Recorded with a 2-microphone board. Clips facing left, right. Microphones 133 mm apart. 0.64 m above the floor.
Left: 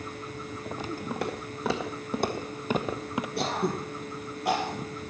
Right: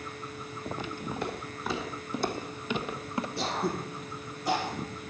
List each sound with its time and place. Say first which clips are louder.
1.1 s footsteps: left 2 dB; 75° left (ahead or behind), 2 m; by 3.3 s 15° left (ahead or behind), 0.8 m
3.4 s throat clearing: left 3 dB; 65° left (ahead or behind), 3.5 m